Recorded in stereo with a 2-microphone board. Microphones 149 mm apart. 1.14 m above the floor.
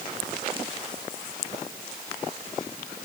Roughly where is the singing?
I don't hear singing.